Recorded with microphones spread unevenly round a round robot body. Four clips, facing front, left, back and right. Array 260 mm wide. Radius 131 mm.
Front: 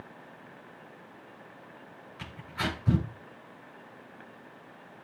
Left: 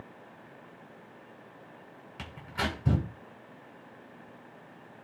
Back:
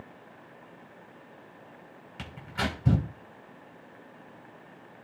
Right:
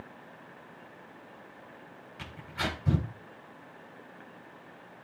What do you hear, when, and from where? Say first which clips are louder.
2.2 s tearing paper: left 1 dB, back 2 dB; 160° left, 8.5 m